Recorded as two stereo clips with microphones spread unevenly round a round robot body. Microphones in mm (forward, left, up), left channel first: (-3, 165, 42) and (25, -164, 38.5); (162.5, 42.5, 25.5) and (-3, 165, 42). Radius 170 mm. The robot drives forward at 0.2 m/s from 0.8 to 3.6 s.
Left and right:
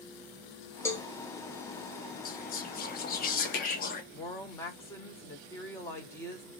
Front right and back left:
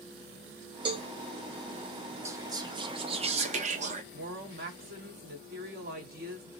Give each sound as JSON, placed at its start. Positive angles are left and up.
{"t": 0.8, "sound": "a cowbell", "azimuth_deg": 165, "distance_m": 0.9}
{"t": 2.2, "sound": "whispering", "azimuth_deg": 75, "distance_m": 0.6}
{"t": 4.1, "sound": "a woman speaking", "azimuth_deg": 175, "distance_m": 1.1}